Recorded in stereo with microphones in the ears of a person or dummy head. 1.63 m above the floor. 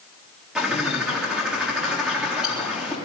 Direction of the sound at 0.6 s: 5° left (ahead or behind).